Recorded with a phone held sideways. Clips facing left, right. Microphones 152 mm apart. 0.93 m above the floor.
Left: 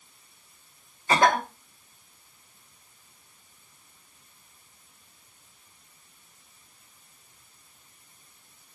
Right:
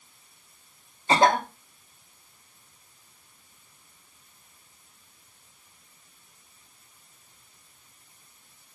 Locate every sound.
1.1 s a cough: 25° right (ahead or behind), 0.7 m